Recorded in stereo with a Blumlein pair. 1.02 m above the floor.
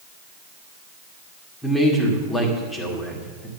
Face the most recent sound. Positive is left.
turn(degrees=10)